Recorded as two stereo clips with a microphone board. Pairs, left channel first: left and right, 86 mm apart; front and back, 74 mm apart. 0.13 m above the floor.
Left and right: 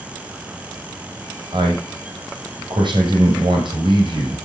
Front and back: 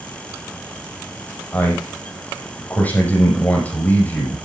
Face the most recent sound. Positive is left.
turn(degrees=-70)